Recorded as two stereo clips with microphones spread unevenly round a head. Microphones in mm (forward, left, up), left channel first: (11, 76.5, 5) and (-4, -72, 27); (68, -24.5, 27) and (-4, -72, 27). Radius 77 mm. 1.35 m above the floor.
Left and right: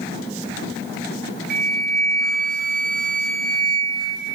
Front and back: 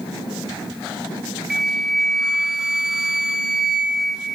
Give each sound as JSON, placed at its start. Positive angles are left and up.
{"t": 1.5, "sound": "a flute", "azimuth_deg": -60, "distance_m": 0.5}